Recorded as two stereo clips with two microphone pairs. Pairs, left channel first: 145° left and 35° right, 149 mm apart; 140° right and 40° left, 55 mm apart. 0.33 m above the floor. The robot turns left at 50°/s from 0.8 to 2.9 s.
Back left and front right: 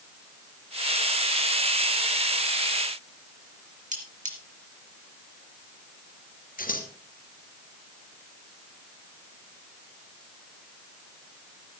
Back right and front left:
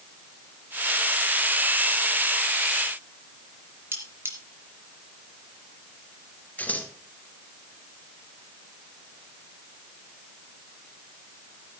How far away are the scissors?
About 2 m.